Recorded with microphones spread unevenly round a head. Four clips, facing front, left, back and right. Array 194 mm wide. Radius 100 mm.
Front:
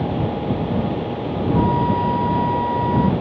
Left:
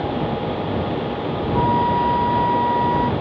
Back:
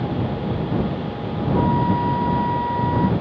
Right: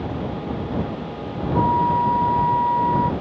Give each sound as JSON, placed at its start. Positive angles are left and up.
{"t": 1.5, "sound": "a flute", "azimuth_deg": 80}